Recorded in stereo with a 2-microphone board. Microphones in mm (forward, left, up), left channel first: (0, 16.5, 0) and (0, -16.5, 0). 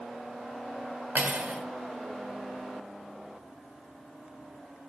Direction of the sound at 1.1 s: 55° right (ahead or behind).